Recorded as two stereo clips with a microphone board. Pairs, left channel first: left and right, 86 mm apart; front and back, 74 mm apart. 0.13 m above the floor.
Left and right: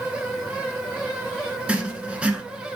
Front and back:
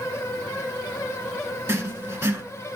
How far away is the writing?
About 0.7 m.